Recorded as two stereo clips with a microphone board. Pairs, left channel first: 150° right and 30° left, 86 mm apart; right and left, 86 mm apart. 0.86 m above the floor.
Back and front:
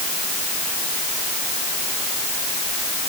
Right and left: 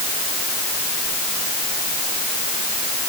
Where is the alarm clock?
No alarm clock in this recording.